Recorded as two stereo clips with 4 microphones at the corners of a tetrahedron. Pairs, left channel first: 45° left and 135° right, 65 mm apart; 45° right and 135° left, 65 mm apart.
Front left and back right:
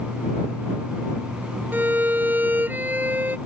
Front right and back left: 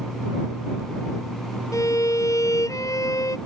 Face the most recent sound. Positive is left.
turn(degrees=-75)